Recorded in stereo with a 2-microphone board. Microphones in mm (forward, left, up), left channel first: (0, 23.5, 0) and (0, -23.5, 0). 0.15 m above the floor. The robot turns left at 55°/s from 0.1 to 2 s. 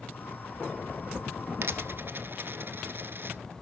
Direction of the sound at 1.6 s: 60° right (ahead or behind).